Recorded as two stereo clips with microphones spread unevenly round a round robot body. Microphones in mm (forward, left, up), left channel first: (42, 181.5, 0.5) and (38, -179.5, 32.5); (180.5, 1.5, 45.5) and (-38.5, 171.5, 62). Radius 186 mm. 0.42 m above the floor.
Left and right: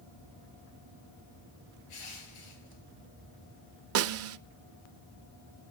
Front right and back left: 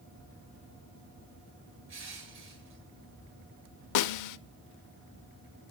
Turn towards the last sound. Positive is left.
turn(degrees=-35)